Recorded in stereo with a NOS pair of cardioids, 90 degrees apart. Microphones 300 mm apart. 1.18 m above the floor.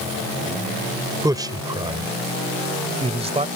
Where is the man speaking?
10° right; by 3.5 s 20° right.